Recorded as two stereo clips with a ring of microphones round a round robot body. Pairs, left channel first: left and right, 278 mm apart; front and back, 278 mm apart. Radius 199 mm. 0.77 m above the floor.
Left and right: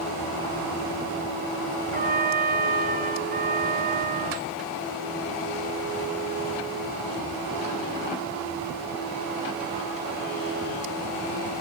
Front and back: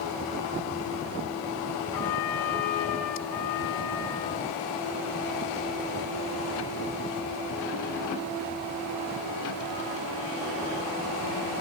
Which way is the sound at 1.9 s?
30° right.